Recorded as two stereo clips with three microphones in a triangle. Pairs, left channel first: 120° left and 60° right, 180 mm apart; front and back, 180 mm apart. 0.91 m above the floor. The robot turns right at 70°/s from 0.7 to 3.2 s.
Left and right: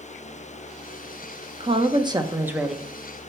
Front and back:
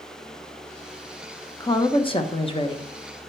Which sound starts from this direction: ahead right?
A woman speaking, at 1.6 s.